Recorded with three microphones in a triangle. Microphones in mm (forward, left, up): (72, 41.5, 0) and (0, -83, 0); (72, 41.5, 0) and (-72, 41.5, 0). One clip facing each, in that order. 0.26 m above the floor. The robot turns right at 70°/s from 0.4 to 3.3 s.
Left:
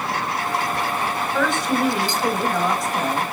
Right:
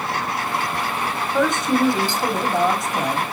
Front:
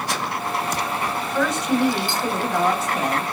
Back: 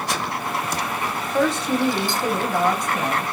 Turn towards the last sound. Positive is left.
turn(degrees=-45)